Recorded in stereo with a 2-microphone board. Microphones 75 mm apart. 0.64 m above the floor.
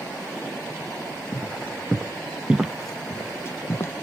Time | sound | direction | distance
1.3 | footsteps | 25° right (ahead or behind) | 2.5 m